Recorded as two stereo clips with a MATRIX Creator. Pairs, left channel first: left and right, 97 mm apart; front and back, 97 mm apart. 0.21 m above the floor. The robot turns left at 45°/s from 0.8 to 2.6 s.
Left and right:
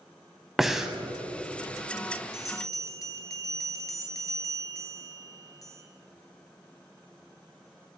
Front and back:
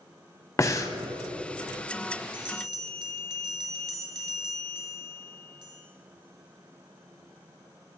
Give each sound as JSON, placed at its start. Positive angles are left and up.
{"t": 0.6, "sound": "breathing", "azimuth_deg": -5, "distance_m": 0.6}
{"t": 2.3, "sound": "a bell", "azimuth_deg": 155, "distance_m": 1.1}